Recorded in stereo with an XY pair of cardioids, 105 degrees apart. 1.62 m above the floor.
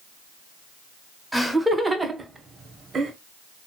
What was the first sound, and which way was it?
Laughter, 5° right.